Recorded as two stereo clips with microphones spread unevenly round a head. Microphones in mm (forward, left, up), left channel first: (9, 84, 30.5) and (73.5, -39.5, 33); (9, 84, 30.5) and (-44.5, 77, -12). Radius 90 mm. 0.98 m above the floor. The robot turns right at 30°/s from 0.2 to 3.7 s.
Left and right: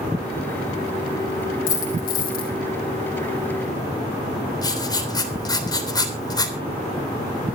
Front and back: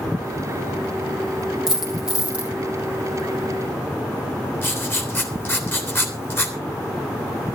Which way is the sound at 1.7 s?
95° left.